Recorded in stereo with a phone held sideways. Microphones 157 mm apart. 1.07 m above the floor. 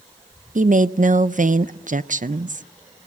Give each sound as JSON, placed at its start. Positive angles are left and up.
{"t": 0.6, "sound": "a woman speaking", "side_deg": -60, "distance_m": 0.6}